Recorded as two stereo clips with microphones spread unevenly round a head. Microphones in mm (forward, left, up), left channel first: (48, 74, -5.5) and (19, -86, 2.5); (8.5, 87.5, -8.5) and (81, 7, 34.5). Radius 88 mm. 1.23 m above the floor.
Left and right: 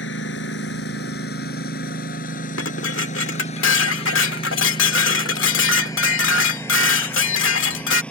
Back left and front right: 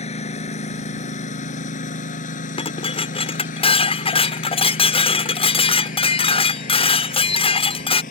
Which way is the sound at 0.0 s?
105° left.